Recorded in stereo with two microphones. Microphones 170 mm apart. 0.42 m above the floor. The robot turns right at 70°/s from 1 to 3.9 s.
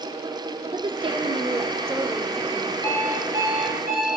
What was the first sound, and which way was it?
A woman speaking, 30° right (ahead or behind).